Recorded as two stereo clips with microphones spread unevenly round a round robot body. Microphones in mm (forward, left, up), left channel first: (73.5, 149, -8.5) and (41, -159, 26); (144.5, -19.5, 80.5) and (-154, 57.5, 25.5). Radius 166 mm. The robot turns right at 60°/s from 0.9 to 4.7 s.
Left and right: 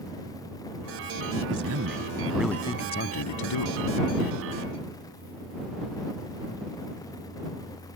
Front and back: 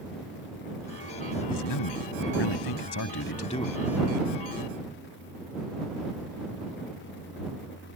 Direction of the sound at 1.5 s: 65° right.